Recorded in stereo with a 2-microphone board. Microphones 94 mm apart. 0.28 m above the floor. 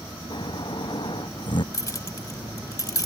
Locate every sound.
0.3 s snoring: 55° left (ahead or behind)
1.7 s keys jangling: 35° left (ahead or behind)